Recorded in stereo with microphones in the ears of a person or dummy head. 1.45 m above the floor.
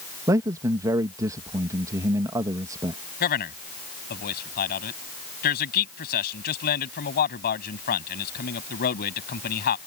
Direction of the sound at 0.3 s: 15° right (ahead or behind).